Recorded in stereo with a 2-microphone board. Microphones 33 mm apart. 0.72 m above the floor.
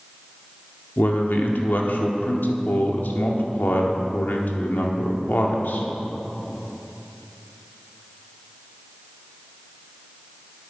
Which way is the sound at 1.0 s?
70° left (ahead or behind).